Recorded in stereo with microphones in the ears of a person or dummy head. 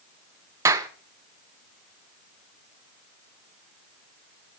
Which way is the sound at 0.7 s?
15° right (ahead or behind).